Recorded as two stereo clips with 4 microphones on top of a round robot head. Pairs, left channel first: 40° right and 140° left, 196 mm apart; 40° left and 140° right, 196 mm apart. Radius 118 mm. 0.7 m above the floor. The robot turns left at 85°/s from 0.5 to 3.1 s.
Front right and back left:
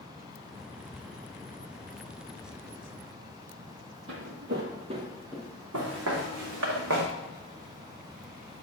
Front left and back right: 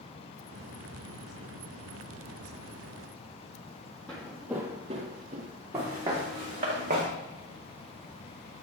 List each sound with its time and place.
4.1 s footsteps: 125° left, 1.0 m; by 5.5 s 120° right, 0.8 m
5.7 s footsteps: 140° left, 2.5 m; by 7.1 s 170° left, 1.6 m